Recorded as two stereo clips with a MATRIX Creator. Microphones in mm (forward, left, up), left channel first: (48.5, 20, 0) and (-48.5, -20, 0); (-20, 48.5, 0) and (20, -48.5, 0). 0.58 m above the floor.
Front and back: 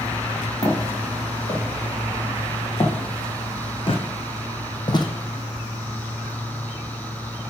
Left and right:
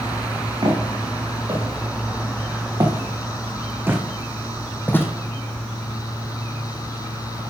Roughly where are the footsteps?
Ahead right.